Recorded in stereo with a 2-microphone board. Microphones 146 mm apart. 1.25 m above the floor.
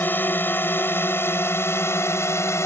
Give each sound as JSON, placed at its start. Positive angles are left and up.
{"t": 0.0, "sound": "a drone", "side_deg": 15}